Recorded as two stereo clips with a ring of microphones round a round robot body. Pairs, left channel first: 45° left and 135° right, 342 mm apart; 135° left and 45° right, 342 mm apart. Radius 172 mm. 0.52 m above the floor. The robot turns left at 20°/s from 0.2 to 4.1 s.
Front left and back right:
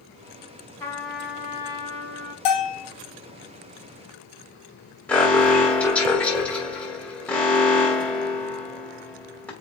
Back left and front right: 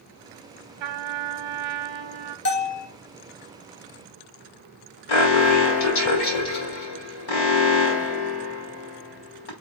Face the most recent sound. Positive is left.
turn(degrees=130)